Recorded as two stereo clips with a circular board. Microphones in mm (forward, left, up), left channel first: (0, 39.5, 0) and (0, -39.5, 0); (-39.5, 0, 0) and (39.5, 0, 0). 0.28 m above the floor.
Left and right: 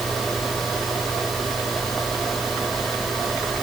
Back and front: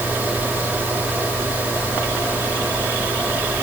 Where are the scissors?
No scissors in this recording.